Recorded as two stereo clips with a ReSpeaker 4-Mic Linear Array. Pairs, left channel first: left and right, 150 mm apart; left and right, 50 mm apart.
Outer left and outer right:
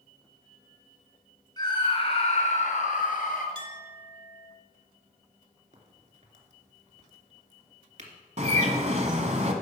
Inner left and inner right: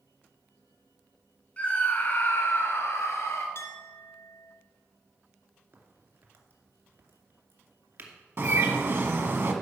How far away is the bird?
About 1.3 m.